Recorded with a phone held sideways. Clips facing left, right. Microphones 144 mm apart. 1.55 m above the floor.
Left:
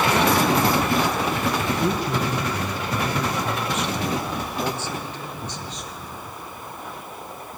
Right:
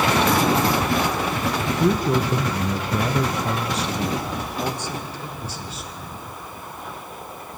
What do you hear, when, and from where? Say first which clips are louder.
1.7 s a man speaking: right 3 dB; 40° right (ahead or behind), 1.1 m; by 6.2 s 5° right (ahead or behind), 2 m